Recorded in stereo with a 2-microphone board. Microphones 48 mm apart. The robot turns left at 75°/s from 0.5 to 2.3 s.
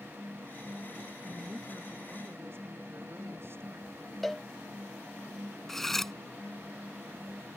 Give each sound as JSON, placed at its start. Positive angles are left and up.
{"t": 1.2, "sound": "a woman speaking", "azimuth_deg": 0}
{"t": 4.2, "sound": "a cowbell", "side_deg": 0}
{"t": 5.7, "sound": "cutlery clinking", "side_deg": 5}